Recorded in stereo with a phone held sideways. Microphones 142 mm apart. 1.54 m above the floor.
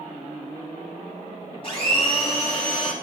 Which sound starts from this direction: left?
A blender, at 1.6 s.